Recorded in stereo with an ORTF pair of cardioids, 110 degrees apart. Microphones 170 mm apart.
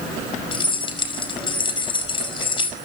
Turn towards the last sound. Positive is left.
turn(degrees=30)